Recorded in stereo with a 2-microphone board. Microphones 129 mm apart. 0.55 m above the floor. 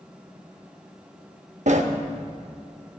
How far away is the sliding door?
About 0.7 m.